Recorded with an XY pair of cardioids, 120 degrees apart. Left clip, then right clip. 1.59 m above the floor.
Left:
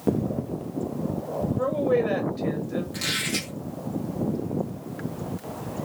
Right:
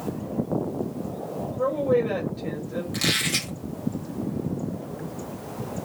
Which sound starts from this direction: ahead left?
A woman speaking, at 1.6 s.